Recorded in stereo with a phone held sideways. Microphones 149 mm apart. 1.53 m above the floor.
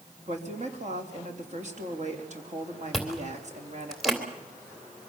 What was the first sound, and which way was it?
A woman speaking, 50° right (ahead or behind).